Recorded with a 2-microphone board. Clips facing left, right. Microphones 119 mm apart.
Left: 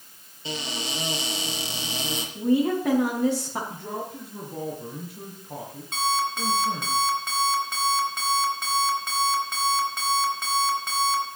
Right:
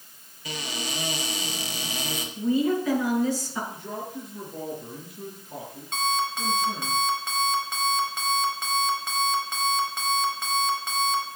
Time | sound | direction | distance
0.5 | a cupboard door | 30° left (ahead or behind) | 4 m
2.4 | a woman speaking | 70° left (ahead or behind) | 6.5 m
3.7 | a man speaking | 60° left (ahead or behind) | 6 m
5.9 | an alarm clock | 5° left (ahead or behind) | 5.5 m